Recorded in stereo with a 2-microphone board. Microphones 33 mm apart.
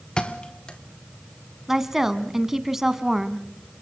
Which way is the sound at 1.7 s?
10° right (ahead or behind).